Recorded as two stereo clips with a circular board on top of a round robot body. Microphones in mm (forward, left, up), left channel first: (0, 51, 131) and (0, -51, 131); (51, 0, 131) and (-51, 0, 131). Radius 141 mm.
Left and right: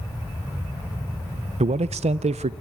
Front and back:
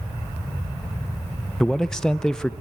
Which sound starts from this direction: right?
A man speaking, at 1.6 s.